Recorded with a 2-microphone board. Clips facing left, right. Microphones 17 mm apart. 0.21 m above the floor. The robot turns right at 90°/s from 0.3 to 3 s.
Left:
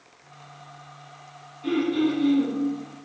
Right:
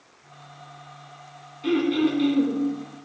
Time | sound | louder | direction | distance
1.6 | throat clearing | right 1 dB | 145° right | 2.0 m